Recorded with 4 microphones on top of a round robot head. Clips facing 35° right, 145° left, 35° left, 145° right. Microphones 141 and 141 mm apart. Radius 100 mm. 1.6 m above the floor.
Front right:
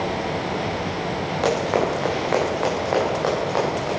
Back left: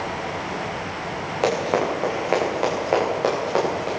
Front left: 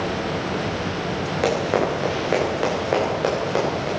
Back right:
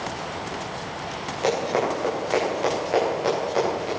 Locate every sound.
1.4 s running footsteps: 70° left, 9 m